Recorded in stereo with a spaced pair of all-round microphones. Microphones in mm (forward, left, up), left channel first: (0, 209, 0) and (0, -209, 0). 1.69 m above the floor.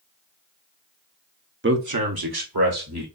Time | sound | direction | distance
1.6 | a man speaking | 30° right (ahead or behind) | 0.5 m